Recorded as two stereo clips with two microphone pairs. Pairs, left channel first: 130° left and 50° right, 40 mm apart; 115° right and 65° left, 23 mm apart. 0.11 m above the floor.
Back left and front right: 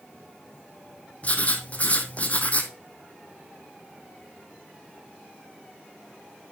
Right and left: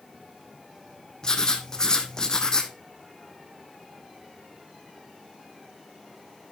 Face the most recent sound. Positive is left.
turn(degrees=-175)